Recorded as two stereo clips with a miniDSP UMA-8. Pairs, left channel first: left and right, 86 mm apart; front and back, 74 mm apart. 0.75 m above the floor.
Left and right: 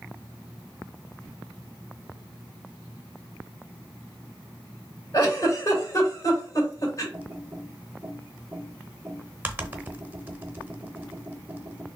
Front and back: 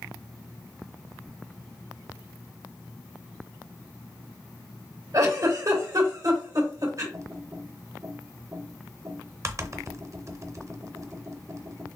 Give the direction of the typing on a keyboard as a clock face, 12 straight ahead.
5 o'clock.